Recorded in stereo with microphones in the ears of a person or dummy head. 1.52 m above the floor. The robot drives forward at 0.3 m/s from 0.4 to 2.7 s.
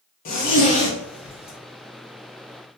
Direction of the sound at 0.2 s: 40° left (ahead or behind).